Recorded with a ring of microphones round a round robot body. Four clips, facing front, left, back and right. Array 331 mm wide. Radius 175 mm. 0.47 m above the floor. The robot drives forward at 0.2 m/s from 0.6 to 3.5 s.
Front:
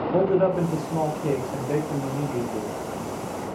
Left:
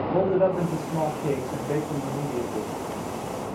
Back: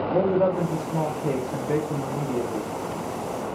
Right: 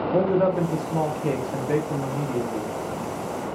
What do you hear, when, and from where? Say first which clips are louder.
0.1 s a man speaking: right 1 dB, front 1 dB; 45° right, 0.7 m; by 2.8 s 150° right, 0.7 m